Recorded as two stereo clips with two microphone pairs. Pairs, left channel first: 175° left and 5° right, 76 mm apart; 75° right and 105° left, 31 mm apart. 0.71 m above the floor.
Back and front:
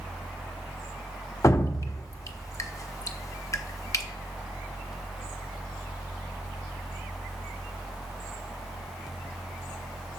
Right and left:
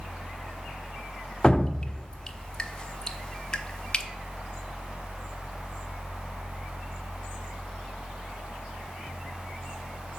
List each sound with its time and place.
1.4 s dripping: 140° right, 0.7 m